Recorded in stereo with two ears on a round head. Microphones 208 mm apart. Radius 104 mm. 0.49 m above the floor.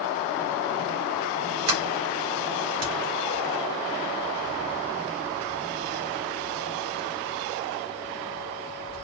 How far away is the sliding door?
About 2.5 m.